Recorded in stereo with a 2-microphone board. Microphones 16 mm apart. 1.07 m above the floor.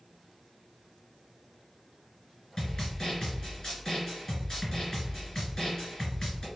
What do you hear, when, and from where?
2.6 s a snare drum: 45° left (ahead or behind), 1.8 m